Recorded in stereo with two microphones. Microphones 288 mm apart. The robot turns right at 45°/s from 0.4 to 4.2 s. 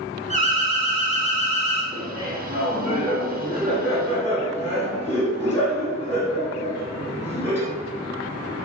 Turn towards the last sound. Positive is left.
turn(degrees=10)